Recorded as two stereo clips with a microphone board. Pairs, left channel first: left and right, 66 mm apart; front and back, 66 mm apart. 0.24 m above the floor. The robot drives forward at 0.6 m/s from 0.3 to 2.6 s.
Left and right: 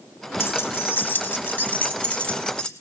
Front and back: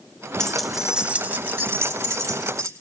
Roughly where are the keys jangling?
Left.